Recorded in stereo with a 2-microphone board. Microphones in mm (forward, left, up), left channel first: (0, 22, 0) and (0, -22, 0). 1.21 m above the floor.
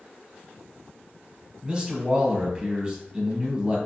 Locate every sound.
1.6 s a man speaking: 20° right (ahead or behind), 1.0 m